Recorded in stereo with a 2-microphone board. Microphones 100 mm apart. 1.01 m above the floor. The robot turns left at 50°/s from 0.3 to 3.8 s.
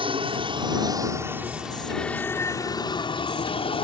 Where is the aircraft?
105° right; by 3.8 s 80° left.